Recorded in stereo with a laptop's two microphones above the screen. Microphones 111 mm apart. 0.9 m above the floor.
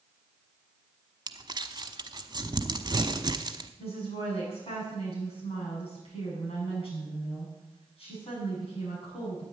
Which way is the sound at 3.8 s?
60° left (ahead or behind).